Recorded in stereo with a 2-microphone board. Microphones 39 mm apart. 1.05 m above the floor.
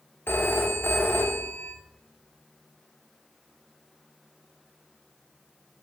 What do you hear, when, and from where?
0.3 s a phone ringing: 75° left (ahead or behind), 1.7 m